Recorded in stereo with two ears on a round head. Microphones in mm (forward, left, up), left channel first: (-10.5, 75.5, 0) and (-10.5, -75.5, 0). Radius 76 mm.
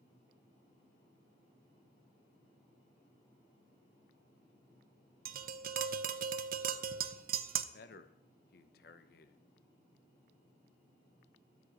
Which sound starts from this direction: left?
A man speaking, at 7.7 s.